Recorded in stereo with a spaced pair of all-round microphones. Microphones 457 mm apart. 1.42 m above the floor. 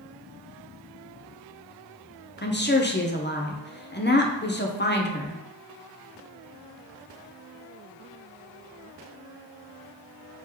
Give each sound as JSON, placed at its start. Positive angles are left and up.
{"t": 2.4, "sound": "a woman speaking", "side_deg": 25, "distance_m": 0.6}